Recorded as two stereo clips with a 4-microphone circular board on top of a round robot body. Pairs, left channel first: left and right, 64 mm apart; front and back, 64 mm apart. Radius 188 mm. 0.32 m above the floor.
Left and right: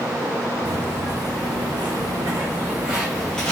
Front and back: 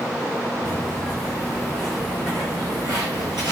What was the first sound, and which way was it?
Footsteps, 70° right.